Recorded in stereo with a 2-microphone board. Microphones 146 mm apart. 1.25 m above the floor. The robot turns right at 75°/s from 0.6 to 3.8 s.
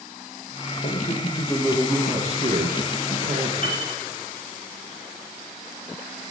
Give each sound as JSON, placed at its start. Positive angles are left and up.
{"t": 0.8, "sound": "a man speaking", "azimuth_deg": 110, "distance_m": 1.8}
{"t": 3.6, "sound": "a piano", "side_deg": 65, "distance_m": 3.0}